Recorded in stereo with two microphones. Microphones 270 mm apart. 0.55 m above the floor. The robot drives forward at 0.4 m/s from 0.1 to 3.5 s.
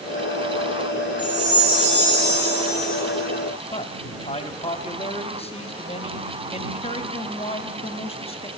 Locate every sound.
1.2 s a chime: 30° right (ahead or behind), 4.5 m; by 3.0 s 25° right (ahead or behind), 5 m
3.7 s a man speaking: 20° left (ahead or behind), 0.7 m